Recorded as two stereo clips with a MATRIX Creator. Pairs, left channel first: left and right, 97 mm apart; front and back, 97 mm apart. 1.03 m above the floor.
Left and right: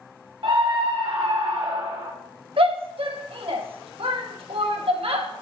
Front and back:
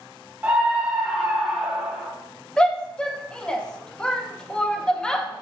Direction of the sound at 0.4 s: 110° right.